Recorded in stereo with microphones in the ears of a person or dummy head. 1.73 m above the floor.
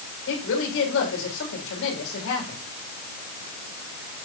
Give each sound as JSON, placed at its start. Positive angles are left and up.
{"t": 0.3, "sound": "a woman speaking", "side_deg": 75, "distance_m": 7.0}